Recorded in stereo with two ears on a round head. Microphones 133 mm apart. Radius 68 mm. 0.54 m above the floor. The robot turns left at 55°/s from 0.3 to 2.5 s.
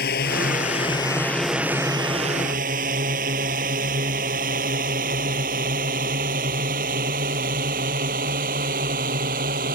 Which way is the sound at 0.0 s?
65° left (ahead or behind).